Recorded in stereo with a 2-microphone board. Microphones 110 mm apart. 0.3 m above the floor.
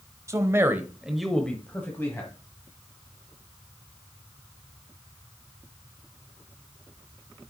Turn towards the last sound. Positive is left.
turn(degrees=25)  # may be behind; listen again after turning